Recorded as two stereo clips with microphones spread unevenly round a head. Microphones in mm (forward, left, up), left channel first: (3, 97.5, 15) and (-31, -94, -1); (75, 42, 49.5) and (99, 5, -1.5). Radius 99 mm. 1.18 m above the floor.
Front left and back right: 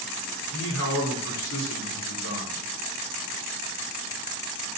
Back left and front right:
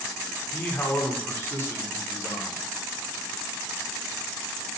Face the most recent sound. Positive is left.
turn(degrees=90)